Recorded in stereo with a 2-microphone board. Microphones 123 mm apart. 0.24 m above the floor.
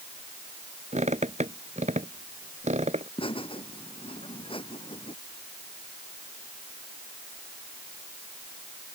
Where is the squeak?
70° right (ahead or behind).